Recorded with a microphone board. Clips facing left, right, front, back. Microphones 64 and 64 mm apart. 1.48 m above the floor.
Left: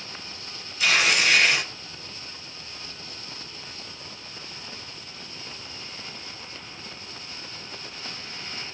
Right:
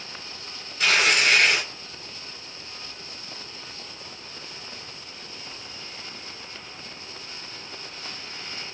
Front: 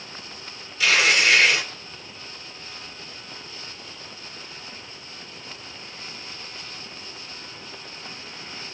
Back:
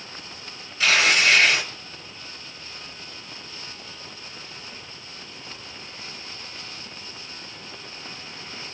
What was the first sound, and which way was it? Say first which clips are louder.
Tearing paper: right 1 dB, even; 120° right.